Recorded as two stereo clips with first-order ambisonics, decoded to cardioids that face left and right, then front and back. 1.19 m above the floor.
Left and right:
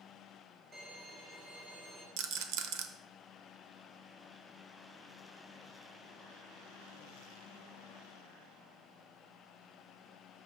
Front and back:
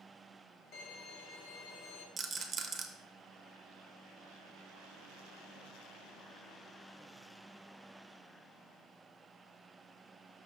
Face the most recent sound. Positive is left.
turn(degrees=-110)